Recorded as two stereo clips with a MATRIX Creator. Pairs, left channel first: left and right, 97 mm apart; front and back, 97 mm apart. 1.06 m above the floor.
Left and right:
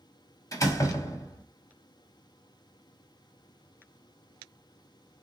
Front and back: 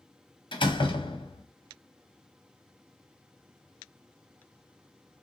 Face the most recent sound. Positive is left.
turn(degrees=30)